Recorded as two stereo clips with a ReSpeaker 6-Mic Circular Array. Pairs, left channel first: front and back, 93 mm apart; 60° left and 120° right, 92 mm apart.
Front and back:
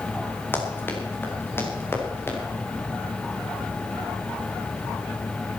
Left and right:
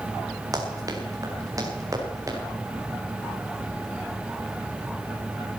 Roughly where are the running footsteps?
Right.